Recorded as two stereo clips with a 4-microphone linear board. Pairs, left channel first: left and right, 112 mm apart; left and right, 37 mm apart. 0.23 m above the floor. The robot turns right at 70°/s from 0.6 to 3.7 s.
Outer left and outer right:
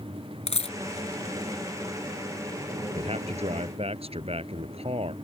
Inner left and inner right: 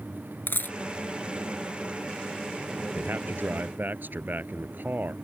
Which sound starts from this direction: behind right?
A man speaking, at 3.0 s.